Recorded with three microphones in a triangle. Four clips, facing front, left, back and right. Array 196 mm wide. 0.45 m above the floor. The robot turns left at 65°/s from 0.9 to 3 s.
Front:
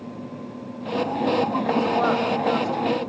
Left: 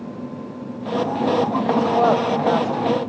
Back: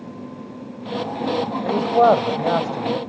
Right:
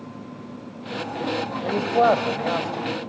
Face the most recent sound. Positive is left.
turn(degrees=130)